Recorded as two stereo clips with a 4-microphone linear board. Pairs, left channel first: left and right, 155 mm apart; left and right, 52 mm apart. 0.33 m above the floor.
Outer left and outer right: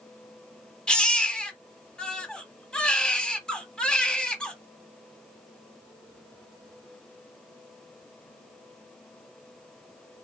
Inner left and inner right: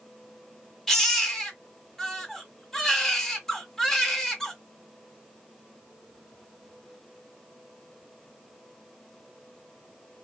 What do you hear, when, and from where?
0.9 s a baby crying: 5° left (ahead or behind), 1.5 m